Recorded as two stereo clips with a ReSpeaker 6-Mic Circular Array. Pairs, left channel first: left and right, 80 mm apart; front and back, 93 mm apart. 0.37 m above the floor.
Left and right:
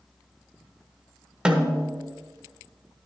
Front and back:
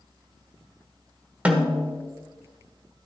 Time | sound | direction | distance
1.4 | a snare drum | 135° right | 1.1 m